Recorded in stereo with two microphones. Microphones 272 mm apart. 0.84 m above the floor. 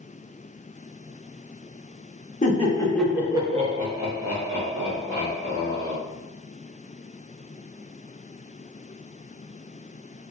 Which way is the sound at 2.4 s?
30° left (ahead or behind).